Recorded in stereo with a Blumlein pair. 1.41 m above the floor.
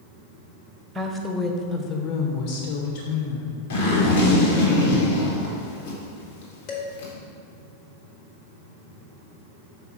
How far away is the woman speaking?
About 0.9 m.